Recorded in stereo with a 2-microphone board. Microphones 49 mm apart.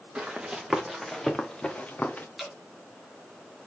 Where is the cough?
No cough in this recording.